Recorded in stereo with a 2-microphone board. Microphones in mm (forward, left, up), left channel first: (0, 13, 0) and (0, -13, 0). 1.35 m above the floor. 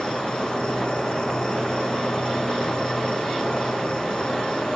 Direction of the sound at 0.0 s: 45° left (ahead or behind).